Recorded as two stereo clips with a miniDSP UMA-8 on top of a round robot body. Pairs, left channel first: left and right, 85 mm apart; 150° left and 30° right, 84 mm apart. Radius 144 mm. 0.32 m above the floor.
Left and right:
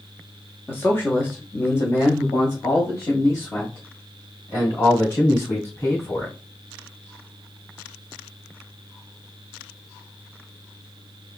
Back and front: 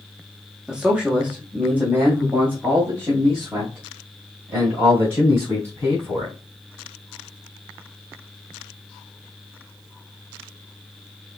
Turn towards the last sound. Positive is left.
turn(degrees=30)